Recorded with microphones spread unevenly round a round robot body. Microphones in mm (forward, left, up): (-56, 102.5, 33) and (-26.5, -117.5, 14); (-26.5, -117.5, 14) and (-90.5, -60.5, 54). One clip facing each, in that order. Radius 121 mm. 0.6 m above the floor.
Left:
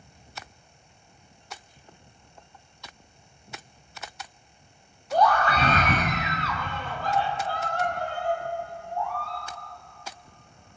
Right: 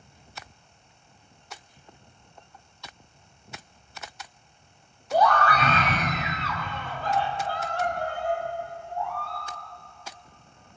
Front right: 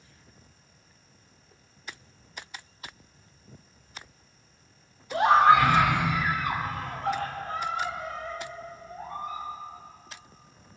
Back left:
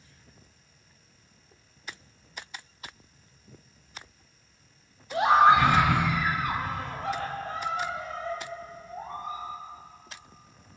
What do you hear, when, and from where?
5.1 s a scream: 30° right, 1.1 m; by 9.4 s 90° left, 6.5 m